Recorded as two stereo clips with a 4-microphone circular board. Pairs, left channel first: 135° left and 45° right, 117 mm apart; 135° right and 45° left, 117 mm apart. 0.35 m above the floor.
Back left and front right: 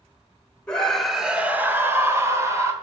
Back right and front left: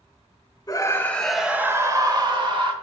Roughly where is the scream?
Behind right.